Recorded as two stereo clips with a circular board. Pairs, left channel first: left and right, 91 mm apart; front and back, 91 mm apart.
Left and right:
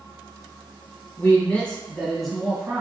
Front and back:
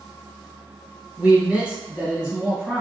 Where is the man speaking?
125° left, 1.4 m; by 2.8 s 120° right, 1.3 m.